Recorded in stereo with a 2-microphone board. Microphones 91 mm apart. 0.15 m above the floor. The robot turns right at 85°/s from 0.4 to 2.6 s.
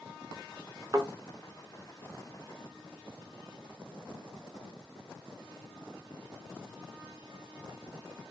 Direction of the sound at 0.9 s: 35° right (ahead or behind).